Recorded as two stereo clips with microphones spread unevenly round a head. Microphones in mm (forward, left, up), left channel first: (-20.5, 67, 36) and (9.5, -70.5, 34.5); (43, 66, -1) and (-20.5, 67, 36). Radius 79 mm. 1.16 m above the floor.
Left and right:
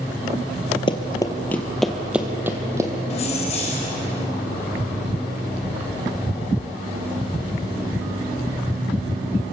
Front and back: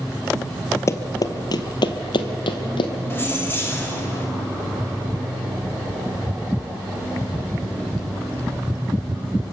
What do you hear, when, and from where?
0.9 s running footsteps: 65° left, 1.4 m; by 2.9 s 10° right, 2 m
3.1 s keys jangling: 55° left, 4 m